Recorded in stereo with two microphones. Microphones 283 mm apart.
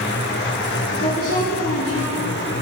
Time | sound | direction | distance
1.0 | a woman speaking | 70° left (ahead or behind) | 4 m